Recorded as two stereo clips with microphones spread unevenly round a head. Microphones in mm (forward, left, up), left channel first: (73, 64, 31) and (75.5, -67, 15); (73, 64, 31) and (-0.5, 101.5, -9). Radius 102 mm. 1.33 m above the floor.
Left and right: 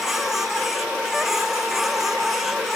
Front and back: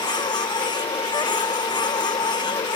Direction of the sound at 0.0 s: Straight ahead.